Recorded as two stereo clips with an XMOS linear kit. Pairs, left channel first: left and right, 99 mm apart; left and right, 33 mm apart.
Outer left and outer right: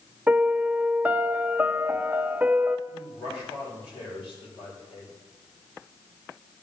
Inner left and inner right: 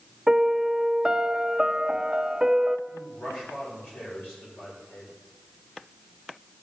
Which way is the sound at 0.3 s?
15° right (ahead or behind).